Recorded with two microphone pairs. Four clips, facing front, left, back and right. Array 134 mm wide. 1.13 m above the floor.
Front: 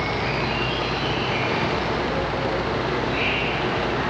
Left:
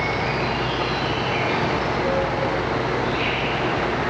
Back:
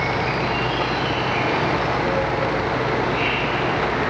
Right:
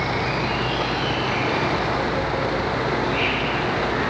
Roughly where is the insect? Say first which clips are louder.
Even, back 3 dB; behind right.